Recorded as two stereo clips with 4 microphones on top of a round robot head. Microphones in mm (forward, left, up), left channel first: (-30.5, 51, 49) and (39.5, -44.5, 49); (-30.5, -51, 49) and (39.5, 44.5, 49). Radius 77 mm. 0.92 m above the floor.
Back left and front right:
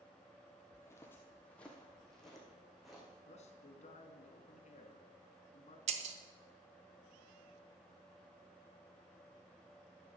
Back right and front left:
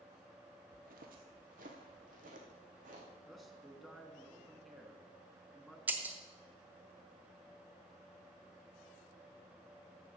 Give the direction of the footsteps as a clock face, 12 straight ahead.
10 o'clock.